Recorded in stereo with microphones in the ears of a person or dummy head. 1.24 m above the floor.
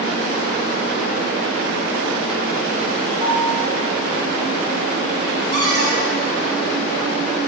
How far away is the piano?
About 2.5 m.